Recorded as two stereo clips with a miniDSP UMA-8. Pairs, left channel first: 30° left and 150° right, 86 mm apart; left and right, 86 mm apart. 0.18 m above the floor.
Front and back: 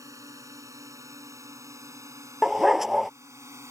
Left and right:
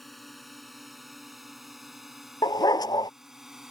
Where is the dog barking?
125° left.